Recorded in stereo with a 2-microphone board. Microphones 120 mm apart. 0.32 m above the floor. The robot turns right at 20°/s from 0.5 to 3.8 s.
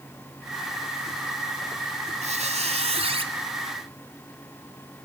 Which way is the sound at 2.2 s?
60° right (ahead or behind).